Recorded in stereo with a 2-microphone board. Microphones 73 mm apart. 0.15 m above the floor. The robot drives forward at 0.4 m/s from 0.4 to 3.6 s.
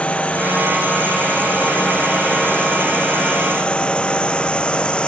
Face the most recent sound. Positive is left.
turn(degrees=15)  # may be behind; listen again after turning